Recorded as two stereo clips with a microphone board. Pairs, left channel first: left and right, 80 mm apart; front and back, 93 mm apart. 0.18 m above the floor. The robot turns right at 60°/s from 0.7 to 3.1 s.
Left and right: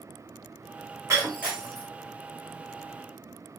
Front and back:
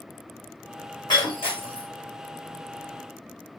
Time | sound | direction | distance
1.1 | breaking glass | 40° right | 1.5 m